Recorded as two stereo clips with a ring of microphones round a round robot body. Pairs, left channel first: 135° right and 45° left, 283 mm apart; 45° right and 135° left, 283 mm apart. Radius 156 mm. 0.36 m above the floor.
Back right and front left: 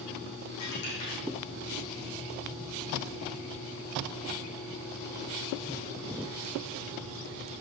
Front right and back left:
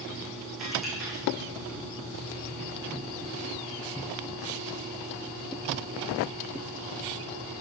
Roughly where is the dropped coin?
Behind right.